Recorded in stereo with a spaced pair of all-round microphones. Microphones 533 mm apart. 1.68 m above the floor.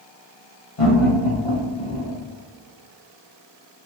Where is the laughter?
70° left (ahead or behind), 1.9 m.